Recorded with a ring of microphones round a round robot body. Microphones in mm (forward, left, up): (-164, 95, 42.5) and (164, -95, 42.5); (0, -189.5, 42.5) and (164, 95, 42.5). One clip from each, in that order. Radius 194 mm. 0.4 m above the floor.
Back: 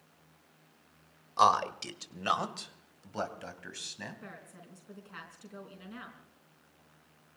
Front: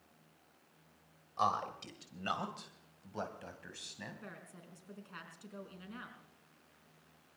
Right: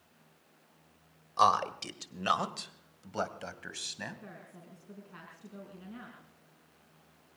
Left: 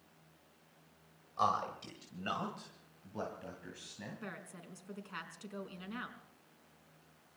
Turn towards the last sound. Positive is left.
turn(degrees=60)